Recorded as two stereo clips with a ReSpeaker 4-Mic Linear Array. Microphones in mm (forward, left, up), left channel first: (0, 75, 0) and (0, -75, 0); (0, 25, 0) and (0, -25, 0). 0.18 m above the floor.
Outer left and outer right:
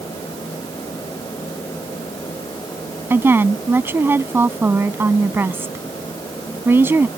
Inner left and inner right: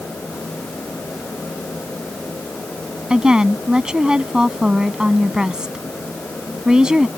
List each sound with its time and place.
3.1 s a woman speaking: 15° right (ahead or behind)